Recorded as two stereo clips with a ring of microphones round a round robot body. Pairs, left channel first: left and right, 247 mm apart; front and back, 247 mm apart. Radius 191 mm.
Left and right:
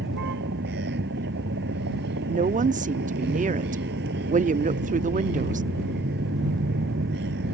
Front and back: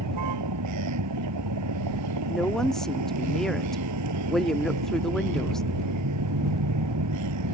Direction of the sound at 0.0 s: 150° right.